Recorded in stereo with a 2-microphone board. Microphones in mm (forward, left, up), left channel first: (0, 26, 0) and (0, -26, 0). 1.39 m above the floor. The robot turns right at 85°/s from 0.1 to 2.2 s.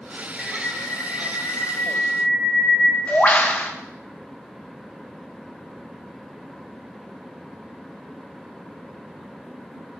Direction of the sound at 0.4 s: 5° right.